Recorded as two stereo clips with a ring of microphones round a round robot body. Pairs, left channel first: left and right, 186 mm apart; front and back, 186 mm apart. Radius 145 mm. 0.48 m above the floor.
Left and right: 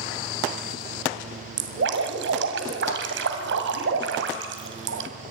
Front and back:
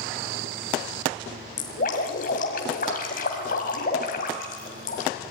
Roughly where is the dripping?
Ahead right.